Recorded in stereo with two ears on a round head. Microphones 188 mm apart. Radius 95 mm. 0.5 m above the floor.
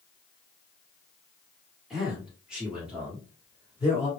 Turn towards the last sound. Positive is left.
turn(degrees=-5)  # may be behind; listen again after turning